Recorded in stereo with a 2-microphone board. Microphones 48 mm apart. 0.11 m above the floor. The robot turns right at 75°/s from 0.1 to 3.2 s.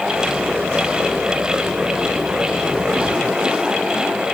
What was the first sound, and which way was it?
Only background noise.